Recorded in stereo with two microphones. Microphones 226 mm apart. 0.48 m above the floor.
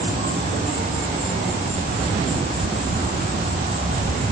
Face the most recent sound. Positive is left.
turn(degrees=-30)  # may be behind; listen again after turning